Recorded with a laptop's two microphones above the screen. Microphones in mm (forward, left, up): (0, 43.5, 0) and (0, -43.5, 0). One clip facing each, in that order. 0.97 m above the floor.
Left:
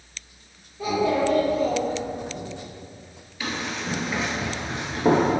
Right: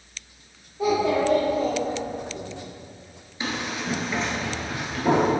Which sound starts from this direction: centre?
A child speaking, at 0.8 s.